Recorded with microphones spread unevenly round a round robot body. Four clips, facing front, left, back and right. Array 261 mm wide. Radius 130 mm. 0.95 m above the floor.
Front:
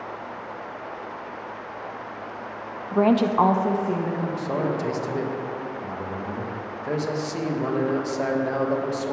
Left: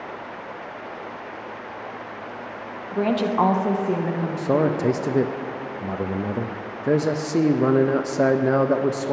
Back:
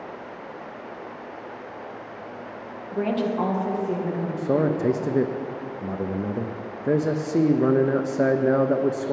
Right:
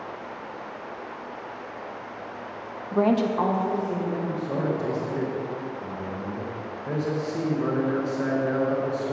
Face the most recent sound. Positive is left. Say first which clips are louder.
# left 6 dB, back 7 dB
turn(degrees=125)